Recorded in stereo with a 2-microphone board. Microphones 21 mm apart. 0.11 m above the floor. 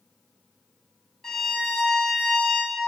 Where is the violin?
10° left (ahead or behind), 1.1 m.